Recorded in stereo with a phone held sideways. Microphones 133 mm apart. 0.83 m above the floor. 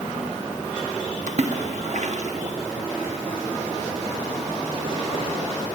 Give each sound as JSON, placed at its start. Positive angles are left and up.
{"t": 1.3, "sound": "a splash", "side_deg": -60, "distance_m": 0.7}